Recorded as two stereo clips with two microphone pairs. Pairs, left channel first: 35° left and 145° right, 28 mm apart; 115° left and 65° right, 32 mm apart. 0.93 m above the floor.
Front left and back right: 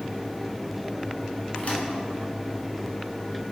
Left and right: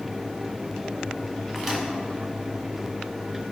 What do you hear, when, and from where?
1.6 s a microwave: 20° left, 1.7 m